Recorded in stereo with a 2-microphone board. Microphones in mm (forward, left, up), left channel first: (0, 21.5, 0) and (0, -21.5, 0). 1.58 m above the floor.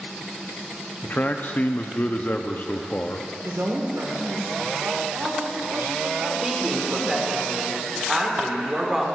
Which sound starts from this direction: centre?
A woman speaking, at 6.4 s.